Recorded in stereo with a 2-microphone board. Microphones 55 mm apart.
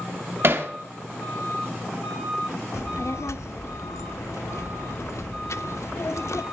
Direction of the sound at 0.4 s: 45° right (ahead or behind).